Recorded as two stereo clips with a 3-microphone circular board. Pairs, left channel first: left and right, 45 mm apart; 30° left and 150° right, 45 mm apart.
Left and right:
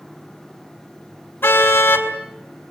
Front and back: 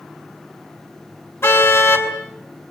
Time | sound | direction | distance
1.4 | a car horn | 55° left | 4 m